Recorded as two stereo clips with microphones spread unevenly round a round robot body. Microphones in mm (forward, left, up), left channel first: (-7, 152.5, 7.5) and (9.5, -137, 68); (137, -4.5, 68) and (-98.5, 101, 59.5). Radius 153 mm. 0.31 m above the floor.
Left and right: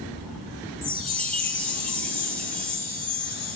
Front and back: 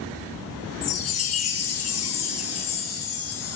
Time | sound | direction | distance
0.8 | a chime | 5° left | 2.0 m